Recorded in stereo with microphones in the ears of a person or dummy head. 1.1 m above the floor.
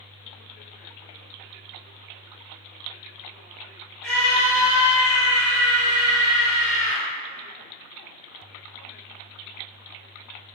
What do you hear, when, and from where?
4.0 s a scream: 5° left (ahead or behind), 1.4 m; by 7.0 s 65° left (ahead or behind), 1.6 m